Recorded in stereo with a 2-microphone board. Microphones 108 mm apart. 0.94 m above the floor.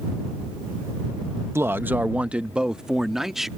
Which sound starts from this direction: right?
A man speaking, at 1.6 s.